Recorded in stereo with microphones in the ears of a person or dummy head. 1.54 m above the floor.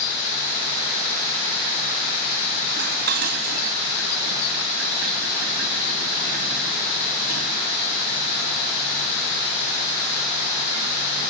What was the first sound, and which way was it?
Dishes clattering, 60° right (ahead or behind).